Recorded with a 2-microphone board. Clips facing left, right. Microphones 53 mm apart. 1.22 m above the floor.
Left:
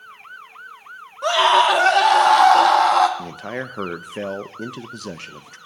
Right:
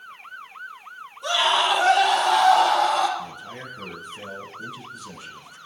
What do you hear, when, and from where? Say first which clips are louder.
1.2 s a scream: left 6 dB; 75° left (ahead or behind), 2.5 m
3.2 s a man speaking: left 6 dB; 75° left (ahead or behind), 0.8 m